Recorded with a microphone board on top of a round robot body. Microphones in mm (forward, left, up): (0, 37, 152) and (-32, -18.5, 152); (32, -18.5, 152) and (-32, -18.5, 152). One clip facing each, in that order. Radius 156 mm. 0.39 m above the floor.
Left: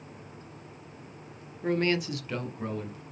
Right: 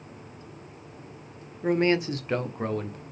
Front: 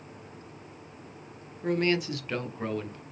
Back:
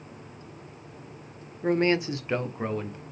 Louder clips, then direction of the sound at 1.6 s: Right 4 dB, back 3 dB; 170° left.